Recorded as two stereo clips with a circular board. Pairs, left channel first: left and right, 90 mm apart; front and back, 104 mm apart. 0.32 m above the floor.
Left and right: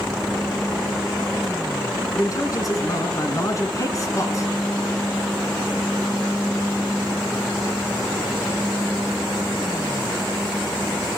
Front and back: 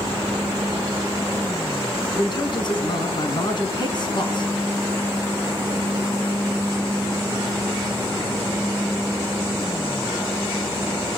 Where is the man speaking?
40° left, 3 m.